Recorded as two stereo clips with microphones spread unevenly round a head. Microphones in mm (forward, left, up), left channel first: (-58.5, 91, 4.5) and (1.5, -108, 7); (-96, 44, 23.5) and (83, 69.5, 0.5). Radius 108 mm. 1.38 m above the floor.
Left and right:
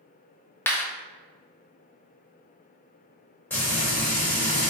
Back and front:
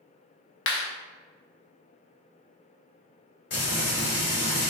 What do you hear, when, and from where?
0.7 s a clap: 175° right, 0.8 m
3.5 s frying: 170° right, 1.7 m